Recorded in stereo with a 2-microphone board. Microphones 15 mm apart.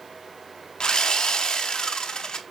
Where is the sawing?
65° left (ahead or behind), 0.6 m.